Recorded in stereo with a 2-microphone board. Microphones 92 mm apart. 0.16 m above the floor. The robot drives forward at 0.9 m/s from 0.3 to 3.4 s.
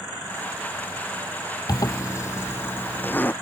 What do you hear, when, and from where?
1.7 s a zipper: 50° left (ahead or behind); by 3.3 s 20° left (ahead or behind)